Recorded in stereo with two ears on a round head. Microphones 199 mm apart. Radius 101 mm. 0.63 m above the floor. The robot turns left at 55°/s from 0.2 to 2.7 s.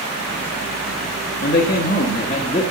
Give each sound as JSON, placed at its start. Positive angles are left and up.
{"t": 1.4, "sound": "a man speaking", "azimuth_deg": 95, "distance_m": 0.8}